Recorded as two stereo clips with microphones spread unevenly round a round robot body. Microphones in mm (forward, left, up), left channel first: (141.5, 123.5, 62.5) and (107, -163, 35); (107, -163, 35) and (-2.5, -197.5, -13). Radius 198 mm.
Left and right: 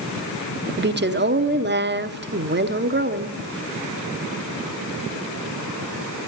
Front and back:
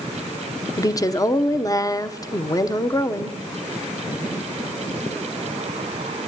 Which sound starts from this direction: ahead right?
A woman speaking, at 0.8 s.